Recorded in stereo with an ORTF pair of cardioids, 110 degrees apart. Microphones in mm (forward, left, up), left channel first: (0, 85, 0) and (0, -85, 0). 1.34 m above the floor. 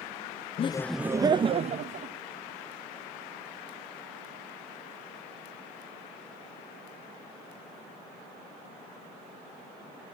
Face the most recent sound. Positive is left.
turn(degrees=-45)